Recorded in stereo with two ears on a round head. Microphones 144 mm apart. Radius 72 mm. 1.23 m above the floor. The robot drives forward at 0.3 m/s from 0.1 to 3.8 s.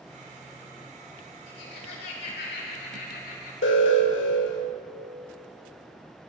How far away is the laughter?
About 3 m.